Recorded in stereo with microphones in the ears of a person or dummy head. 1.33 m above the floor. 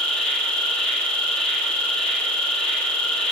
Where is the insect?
10° left (ahead or behind), 1.3 m.